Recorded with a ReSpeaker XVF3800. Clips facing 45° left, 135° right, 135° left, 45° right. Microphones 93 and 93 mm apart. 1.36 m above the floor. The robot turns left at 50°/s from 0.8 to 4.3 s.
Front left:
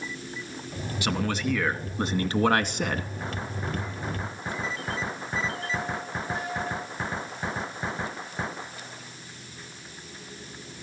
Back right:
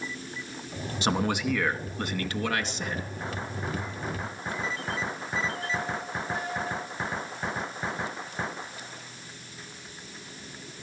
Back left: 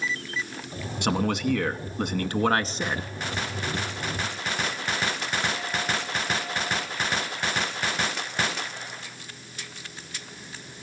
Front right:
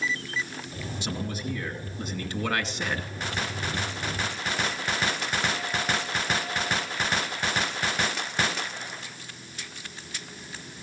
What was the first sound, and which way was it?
A man speaking, 165° left.